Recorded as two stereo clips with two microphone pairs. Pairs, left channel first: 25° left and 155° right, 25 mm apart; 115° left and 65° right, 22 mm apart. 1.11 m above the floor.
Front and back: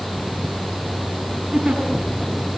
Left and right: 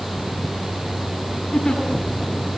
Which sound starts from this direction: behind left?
A giggle, at 1.5 s.